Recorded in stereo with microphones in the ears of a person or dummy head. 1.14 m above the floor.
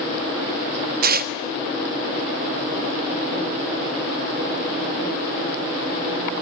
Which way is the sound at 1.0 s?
60° right (ahead or behind).